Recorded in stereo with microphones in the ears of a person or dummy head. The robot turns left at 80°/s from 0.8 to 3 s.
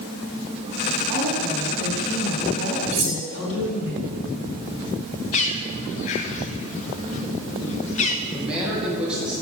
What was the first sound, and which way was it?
A woman speaking, 130° right.